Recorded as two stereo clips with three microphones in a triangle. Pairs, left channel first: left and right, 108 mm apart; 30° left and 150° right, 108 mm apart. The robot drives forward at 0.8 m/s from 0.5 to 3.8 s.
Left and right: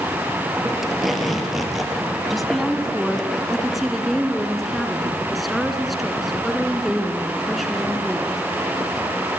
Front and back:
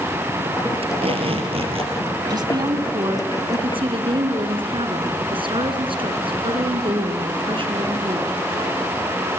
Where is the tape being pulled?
Straight behind, 4 m.